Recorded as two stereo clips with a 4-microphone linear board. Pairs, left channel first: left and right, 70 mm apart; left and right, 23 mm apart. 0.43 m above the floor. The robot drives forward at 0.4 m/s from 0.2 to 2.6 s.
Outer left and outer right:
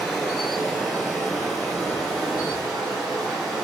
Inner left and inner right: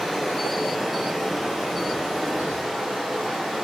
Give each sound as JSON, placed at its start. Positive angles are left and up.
{"t": 0.0, "sound": "running water", "side_deg": 0, "distance_m": 0.9}